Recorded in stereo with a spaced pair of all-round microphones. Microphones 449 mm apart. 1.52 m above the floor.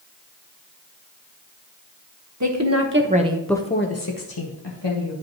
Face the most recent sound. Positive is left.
turn(degrees=80)